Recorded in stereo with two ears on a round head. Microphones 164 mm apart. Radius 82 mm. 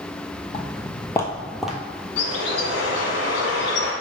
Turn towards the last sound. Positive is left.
turn(degrees=65)  # may be behind; listen again after turning